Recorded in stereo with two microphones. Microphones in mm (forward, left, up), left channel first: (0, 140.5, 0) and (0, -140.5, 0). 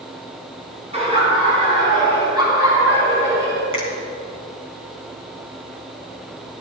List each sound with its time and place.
0.9 s laughter: 20° right (ahead or behind), 4.5 m; by 3.6 s 10° right (ahead or behind), 3.5 m
3.7 s a finger snap: 45° right (ahead or behind), 3.5 m